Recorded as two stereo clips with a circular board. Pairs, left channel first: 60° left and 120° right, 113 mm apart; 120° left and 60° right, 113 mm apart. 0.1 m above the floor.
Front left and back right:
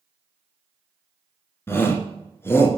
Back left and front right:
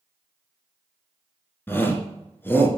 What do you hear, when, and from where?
1.7 s a shout: 85° left, 1.5 m